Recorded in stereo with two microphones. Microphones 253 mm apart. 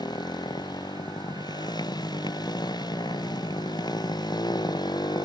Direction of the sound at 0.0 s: 15° left (ahead or behind).